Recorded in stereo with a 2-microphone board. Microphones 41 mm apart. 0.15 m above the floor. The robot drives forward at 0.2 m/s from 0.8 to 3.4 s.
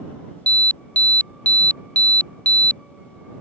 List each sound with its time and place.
0.5 s an alarm: 35° left (ahead or behind)